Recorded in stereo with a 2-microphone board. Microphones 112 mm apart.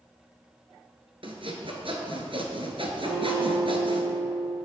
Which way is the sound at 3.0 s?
30° right (ahead or behind).